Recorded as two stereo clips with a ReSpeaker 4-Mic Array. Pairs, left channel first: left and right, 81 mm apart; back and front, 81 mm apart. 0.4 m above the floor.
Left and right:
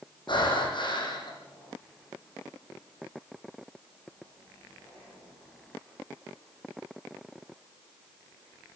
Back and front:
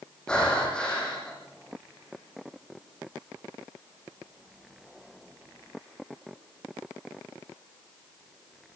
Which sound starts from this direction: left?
Breathing, at 0.3 s.